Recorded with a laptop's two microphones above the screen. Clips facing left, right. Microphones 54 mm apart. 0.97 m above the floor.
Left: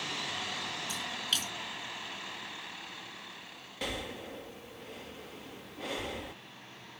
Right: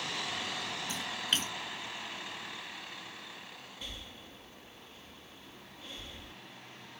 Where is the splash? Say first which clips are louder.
Right 3 dB; 35° right (ahead or behind).